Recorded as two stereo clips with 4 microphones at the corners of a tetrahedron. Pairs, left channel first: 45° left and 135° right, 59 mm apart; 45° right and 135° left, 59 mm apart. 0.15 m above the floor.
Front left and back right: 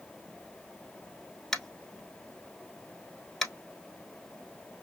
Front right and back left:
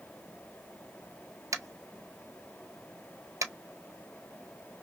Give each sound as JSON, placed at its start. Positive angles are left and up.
{"t": 1.5, "sound": "tapping", "azimuth_deg": 130, "distance_m": 0.8}